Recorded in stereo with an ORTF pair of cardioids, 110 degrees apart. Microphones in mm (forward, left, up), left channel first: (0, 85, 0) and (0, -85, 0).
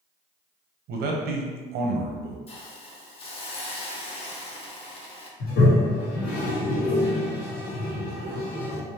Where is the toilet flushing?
70° left, 1.2 m.